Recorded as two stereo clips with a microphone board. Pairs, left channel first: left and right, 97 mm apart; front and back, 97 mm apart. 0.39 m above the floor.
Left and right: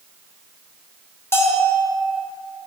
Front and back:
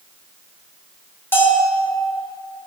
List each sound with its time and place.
1.3 s a bell: 50° left, 1.3 m